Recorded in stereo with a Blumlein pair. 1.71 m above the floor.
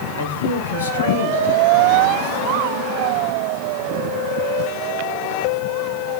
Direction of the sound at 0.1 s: 65° left.